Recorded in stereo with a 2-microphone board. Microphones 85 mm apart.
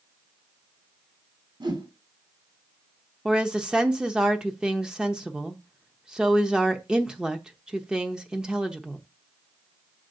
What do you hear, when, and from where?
1.6 s a whoosh: 60° right (ahead or behind), 1.7 m
3.2 s a woman speaking: 10° right (ahead or behind), 0.7 m